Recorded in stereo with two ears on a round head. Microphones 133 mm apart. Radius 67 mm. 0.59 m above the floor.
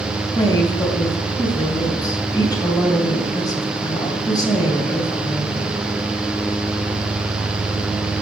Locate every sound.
0.3 s a woman speaking: 30° left (ahead or behind), 3 m